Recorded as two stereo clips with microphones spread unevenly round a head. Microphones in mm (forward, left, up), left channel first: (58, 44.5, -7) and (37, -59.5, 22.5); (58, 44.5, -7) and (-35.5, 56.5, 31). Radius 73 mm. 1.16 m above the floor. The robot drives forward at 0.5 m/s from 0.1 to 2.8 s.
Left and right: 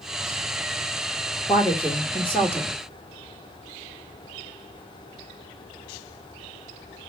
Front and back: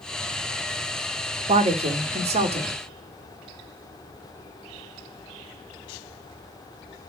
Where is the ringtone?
I don't hear a ringtone.